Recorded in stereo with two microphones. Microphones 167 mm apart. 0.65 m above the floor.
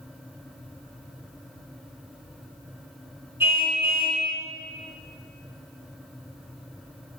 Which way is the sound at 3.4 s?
15° right (ahead or behind).